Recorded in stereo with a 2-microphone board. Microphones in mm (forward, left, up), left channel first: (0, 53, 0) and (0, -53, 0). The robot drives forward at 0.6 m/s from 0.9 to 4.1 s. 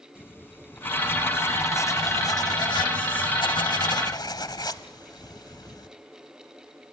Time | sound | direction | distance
0.1 | writing | 20° left (ahead or behind) | 1.6 m